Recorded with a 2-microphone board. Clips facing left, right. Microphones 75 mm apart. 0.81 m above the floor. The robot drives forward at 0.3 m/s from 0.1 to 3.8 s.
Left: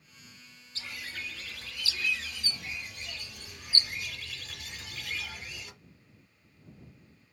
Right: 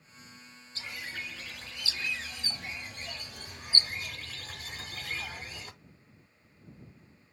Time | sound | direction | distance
0.8 | a bird | 20° right (ahead or behind) | 1.0 m